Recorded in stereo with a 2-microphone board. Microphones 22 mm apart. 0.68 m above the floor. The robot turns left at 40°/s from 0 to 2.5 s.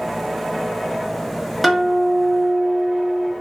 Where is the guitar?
Centre (ahead or behind), 0.8 m; by 3.3 s 10° right (ahead or behind), 0.8 m.